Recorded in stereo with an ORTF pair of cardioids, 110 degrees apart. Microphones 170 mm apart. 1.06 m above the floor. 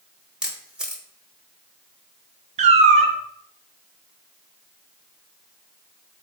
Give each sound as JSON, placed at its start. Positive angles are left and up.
{"t": 0.4, "sound": "a camera shutter", "azimuth_deg": -5, "distance_m": 0.8}
{"t": 2.6, "sound": "a cat meowing", "azimuth_deg": -40, "distance_m": 0.6}